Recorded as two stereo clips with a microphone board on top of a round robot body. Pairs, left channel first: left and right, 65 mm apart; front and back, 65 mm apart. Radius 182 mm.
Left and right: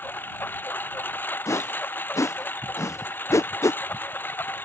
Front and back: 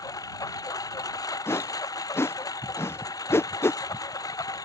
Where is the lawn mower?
30° left.